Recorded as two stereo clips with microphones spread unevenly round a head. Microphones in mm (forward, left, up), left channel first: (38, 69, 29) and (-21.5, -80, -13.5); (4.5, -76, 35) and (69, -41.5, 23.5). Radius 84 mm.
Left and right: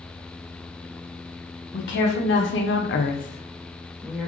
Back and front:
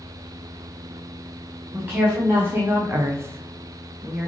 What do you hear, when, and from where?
1.7 s a woman speaking: 100° left, 1.3 m; by 4.3 s 35° right, 0.9 m